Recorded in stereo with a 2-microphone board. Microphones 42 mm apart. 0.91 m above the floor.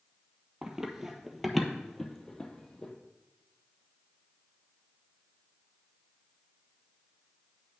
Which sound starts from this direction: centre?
Running footsteps, at 0.6 s.